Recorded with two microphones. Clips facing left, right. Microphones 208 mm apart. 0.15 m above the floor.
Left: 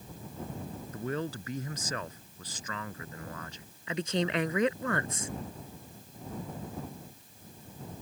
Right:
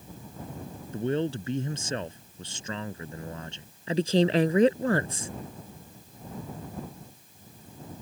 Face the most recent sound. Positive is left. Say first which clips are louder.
# right 8 dB
turn(degrees=-35)  # may be behind; listen again after turning